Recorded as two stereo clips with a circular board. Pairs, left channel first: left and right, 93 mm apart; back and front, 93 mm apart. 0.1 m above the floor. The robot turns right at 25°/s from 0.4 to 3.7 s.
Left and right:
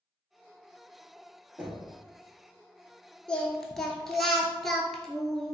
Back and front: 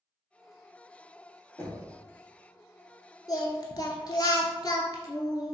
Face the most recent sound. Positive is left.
turn(degrees=175)